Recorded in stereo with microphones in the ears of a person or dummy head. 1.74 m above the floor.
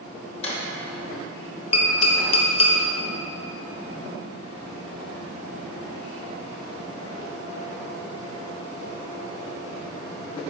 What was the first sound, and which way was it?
A drawer, 40° left (ahead or behind).